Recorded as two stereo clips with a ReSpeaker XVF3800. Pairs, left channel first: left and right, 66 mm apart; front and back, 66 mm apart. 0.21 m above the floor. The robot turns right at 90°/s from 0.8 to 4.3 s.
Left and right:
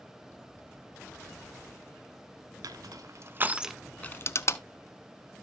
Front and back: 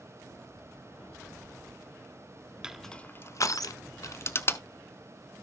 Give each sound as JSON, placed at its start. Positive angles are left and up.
{"t": 2.6, "sound": "crushing", "azimuth_deg": -100, "distance_m": 0.6}